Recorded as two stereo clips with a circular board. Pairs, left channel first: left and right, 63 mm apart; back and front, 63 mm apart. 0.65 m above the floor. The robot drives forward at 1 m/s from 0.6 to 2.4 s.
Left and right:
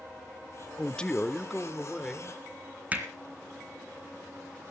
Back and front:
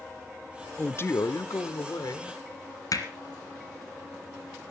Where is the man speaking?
140° left, 0.6 m; by 2.4 s 175° left, 1.9 m.